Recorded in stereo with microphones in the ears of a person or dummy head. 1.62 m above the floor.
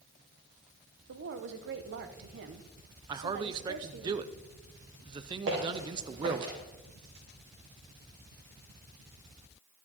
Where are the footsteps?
65° right (ahead or behind), 4 m; by 6.5 s 60° right (ahead or behind), 3.5 m.